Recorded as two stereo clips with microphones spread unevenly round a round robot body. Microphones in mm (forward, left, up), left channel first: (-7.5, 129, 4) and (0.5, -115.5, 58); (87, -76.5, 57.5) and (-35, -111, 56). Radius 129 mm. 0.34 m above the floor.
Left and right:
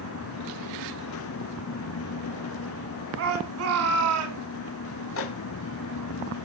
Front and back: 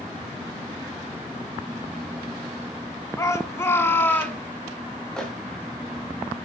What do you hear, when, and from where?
3.2 s a shout: 50° right, 3 m; by 4.4 s 60° right, 3.5 m
5.2 s a microwave: 100° left, 2.5 m